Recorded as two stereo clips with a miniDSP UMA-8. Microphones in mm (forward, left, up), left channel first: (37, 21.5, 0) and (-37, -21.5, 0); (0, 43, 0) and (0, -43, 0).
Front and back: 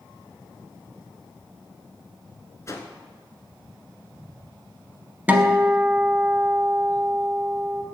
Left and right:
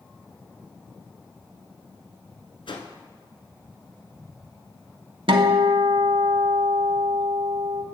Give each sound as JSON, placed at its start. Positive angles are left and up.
{"t": 2.7, "sound": "a whoosh", "azimuth_deg": 85, "distance_m": 0.9}
{"t": 5.3, "sound": "a guitar", "azimuth_deg": -80, "distance_m": 0.7}